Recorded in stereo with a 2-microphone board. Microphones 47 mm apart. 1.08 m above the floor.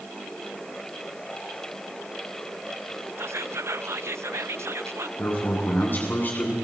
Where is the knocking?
No knocking in this recording.